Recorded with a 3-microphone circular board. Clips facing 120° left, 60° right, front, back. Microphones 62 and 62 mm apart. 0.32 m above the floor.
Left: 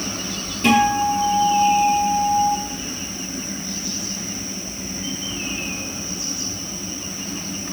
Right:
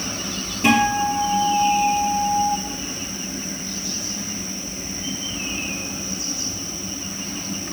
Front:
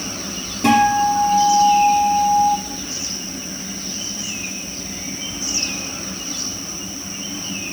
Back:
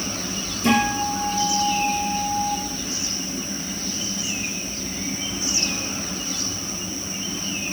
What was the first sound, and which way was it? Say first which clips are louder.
A guitar: left 1 dB, front 6 dB; 20° left.